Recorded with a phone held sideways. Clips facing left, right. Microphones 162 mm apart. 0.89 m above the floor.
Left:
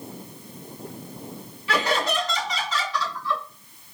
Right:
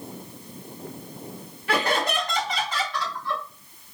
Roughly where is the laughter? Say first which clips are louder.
Even; right.